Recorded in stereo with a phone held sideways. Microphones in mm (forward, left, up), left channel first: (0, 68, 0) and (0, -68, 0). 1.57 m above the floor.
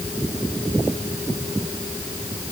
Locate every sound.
Only background noise.